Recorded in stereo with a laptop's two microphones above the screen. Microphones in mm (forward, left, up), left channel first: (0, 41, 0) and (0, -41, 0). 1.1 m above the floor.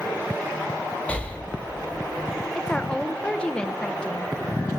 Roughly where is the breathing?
Centre.